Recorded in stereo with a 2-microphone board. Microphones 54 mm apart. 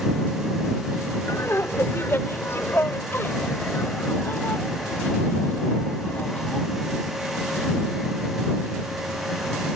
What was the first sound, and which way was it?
Laughter, 55° left (ahead or behind).